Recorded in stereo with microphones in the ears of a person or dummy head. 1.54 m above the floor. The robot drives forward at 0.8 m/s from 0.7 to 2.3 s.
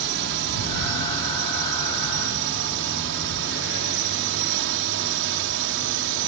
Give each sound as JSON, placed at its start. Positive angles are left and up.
{"t": 0.0, "sound": "a drone", "side_deg": -65}